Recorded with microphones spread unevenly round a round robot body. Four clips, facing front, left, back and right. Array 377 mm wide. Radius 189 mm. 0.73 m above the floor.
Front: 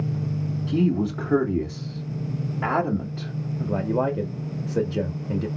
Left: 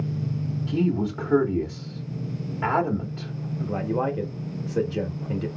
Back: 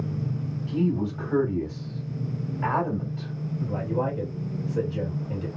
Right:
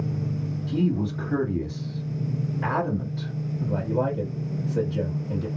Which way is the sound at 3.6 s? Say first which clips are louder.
Even, front 4 dB; 20° left.